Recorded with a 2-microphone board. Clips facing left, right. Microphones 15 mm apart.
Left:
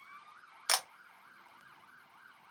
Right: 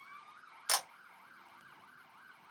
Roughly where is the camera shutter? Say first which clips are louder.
Left 2 dB; left.